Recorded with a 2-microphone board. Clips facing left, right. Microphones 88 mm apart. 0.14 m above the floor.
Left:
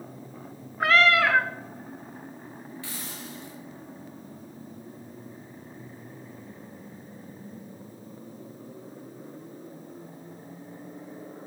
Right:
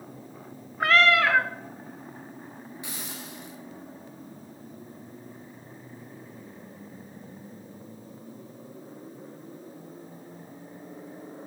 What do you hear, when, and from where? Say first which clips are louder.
0.8 s a cat meowing: even; centre (ahead or behind), 0.6 m
2.8 s a hiss: even; 20° right (ahead or behind), 1.8 m